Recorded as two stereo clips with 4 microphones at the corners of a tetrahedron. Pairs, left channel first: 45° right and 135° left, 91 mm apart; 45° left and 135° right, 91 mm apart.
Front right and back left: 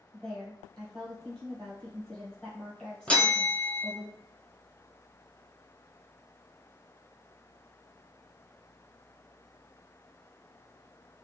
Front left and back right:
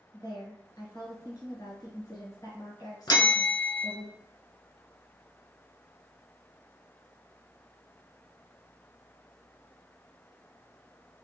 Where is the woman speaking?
35° left, 1.5 m.